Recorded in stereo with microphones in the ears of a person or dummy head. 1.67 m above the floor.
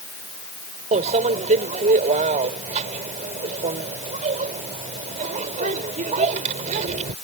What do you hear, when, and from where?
0.9 s a microwave: 30° right (ahead or behind)